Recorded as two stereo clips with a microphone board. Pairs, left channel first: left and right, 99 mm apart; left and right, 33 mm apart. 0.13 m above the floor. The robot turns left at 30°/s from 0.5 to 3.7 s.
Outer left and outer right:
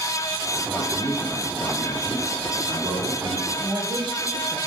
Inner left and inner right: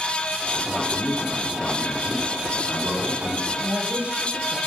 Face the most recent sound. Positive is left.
turn(degrees=-50)  # may be behind; listen again after turning